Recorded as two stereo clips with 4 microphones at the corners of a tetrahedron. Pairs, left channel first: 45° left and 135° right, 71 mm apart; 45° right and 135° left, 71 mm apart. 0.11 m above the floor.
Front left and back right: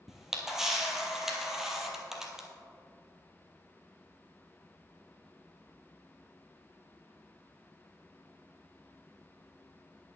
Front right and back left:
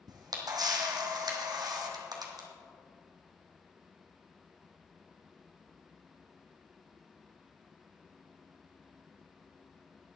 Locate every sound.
0.1 s a camera shutter: 140° left, 1.7 m